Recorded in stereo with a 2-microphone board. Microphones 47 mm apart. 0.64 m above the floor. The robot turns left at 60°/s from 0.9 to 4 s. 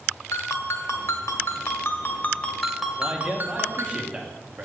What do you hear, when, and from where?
0.3 s a ringtone: 110° left, 1.2 m; by 4.0 s 75° right, 1.2 m
3.0 s a man speaking: 25° right (ahead or behind), 1.3 m; by 4.7 s 20° right (ahead or behind), 1.3 m